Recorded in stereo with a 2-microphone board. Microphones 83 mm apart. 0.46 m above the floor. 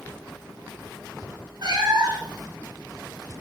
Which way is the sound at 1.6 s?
55° right (ahead or behind).